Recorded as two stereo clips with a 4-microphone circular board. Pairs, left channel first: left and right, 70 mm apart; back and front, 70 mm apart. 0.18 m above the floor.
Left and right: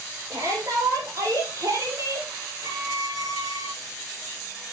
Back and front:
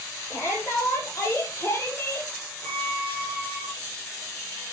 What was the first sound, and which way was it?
A shout, 135° right.